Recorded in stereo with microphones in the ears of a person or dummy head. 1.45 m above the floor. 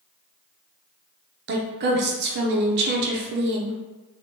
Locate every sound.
1.5 s a woman speaking: 50° right (ahead or behind), 0.5 m